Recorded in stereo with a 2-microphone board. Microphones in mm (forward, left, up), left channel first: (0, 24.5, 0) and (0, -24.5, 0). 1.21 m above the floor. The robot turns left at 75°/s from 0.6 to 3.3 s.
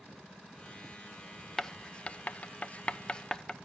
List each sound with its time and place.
1.6 s writing: 10° left (ahead or behind), 0.5 m; by 3.5 s 15° left (ahead or behind), 0.5 m